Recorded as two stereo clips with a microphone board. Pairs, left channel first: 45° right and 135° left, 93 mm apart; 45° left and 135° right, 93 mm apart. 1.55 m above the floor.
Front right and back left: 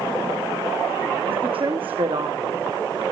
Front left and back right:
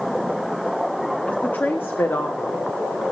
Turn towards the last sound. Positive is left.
turn(degrees=105)